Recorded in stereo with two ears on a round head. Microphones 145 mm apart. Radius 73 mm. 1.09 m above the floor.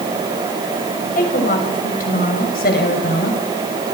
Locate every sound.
1.1 s a woman speaking: 50° left (ahead or behind), 7 m; by 3.4 s 60° left (ahead or behind), 7.5 m